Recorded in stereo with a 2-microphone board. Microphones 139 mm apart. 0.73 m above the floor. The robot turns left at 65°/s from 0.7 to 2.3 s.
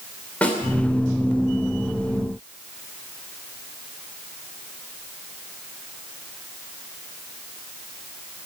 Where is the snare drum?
10° left (ahead or behind), 2.5 m.